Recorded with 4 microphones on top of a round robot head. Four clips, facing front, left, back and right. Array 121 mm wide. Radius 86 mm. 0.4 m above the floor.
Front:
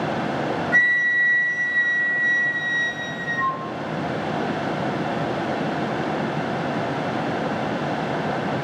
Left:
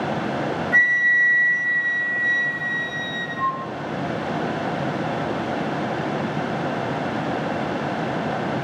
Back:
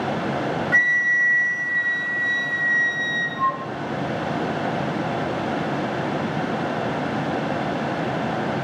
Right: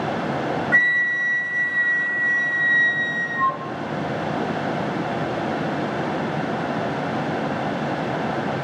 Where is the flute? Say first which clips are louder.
Left 1 dB, even; 115° right, 1.6 m.